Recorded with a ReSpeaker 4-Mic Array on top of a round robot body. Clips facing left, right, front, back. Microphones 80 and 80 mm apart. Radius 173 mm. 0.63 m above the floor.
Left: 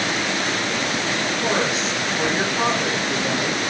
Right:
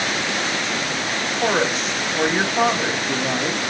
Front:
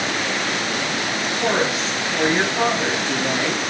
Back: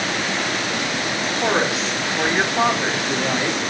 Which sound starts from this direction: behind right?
A woman speaking, at 1.4 s.